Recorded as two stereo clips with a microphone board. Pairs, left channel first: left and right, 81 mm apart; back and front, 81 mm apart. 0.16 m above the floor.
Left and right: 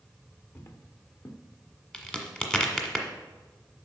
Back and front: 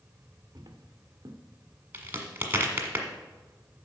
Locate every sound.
0.6 s footsteps: 40° left, 1.4 m
1.9 s a crack: 25° left, 1.5 m